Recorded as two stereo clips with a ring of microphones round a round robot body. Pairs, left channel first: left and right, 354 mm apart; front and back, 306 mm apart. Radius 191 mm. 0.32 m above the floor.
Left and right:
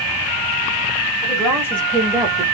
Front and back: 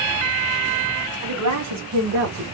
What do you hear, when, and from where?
1.2 s a woman speaking: 165° left, 2 m; by 2.4 s 155° right, 1.3 m